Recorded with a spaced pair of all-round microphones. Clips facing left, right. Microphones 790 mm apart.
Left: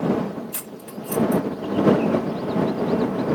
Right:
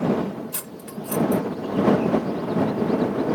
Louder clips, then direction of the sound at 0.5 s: Even; 65° right (ahead or behind).